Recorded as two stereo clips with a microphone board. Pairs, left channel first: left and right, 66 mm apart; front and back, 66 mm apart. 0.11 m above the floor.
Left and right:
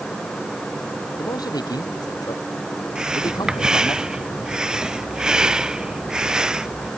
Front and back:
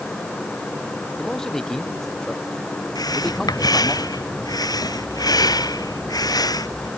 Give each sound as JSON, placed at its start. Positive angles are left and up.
{"t": 1.2, "sound": "a man speaking", "azimuth_deg": 80}
{"t": 3.0, "sound": "breathing", "azimuth_deg": -15}